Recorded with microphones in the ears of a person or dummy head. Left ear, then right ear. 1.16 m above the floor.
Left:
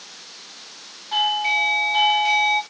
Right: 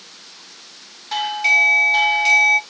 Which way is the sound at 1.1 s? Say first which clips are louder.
Right 3 dB; 70° right (ahead or behind).